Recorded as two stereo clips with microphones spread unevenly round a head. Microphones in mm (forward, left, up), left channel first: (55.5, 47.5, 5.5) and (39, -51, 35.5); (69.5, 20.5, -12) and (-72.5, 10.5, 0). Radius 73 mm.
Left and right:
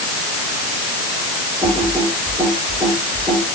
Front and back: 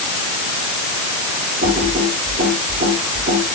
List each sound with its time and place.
1.6 s typing on a keyboard: straight behind, 7.5 m